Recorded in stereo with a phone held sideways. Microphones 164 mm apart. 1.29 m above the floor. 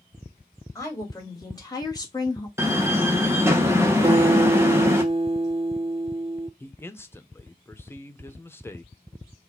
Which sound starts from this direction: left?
A woman speaking, at 0.8 s.